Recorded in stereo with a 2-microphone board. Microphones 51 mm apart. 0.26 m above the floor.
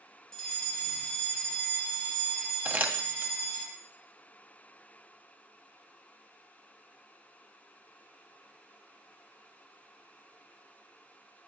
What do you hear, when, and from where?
0.3 s a fire alarm: 10° left (ahead or behind), 3 m
2.6 s crumpling: 30° right (ahead or behind), 1.6 m